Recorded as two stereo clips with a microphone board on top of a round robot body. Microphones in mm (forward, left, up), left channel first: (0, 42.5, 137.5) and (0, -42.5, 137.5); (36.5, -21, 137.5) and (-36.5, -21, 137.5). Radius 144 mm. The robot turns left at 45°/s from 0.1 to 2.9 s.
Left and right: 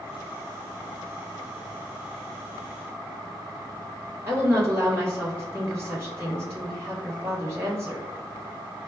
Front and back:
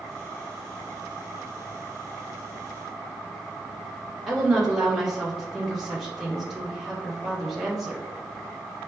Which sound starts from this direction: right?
A woman speaking, at 4.3 s.